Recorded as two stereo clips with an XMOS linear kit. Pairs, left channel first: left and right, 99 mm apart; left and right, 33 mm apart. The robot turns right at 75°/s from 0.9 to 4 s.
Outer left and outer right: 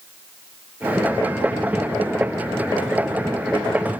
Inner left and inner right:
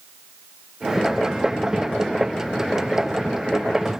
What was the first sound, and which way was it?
Only background noise.